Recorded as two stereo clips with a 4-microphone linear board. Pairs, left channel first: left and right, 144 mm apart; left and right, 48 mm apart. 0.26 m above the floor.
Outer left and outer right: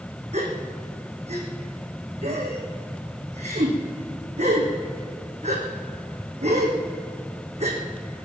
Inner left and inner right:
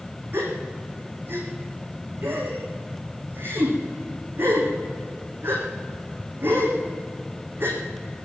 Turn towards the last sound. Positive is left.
turn(degrees=-50)  # may be behind; listen again after turning